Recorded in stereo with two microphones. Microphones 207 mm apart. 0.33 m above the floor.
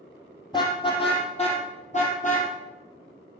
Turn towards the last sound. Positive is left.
turn(degrees=40)  # may be behind; listen again after turning